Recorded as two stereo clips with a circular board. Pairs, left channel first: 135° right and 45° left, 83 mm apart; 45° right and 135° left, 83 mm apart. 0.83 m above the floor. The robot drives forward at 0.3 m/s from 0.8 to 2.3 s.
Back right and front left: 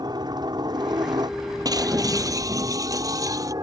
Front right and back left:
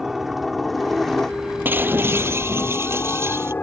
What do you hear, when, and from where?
0.0 s a helicopter: 50° left; by 3.6 s 20° left
1.6 s breaking glass: 75° left; by 3.5 s 80° left